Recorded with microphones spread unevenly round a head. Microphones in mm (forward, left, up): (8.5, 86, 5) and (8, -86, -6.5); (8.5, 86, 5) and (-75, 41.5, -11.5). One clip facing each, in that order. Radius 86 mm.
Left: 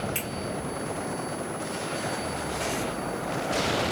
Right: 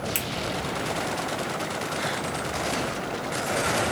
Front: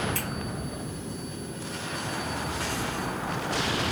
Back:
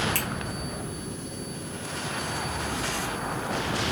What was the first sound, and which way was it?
A finger snap, 115° right.